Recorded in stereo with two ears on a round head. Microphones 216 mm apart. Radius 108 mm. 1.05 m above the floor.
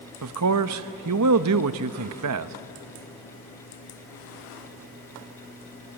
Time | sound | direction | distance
0.2 | a man speaking | 70° right (ahead or behind) | 0.9 m